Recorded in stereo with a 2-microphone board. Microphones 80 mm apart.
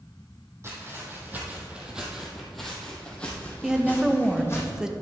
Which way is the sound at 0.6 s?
35° right (ahead or behind).